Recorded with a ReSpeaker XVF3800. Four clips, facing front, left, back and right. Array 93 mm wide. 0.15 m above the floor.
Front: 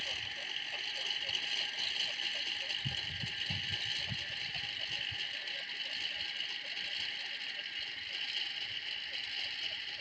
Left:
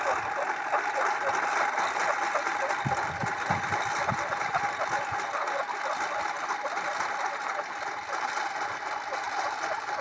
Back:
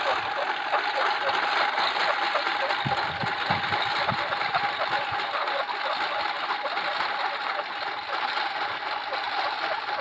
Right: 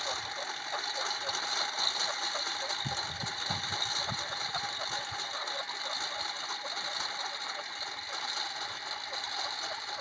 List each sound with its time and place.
0.0 s a lawn mower: 150° left; by 10.0 s 155° left